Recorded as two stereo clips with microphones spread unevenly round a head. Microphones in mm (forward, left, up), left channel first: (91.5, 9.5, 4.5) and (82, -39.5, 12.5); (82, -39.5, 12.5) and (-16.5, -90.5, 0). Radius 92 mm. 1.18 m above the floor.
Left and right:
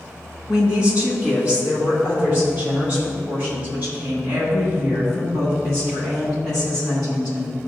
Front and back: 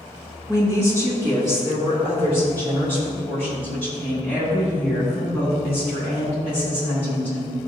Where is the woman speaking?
125° left, 1.7 m; by 7.6 s 150° left, 12 m.